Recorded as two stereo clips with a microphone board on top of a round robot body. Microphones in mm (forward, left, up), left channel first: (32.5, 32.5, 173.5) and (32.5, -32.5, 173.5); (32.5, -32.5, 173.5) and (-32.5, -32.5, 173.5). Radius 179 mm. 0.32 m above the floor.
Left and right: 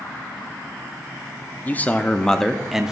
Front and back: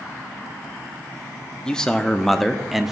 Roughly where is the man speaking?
Ahead left.